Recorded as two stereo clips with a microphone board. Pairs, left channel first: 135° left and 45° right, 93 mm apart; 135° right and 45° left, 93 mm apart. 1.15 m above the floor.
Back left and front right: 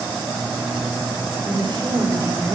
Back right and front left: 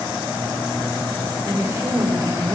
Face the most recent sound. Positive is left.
turn(degrees=0)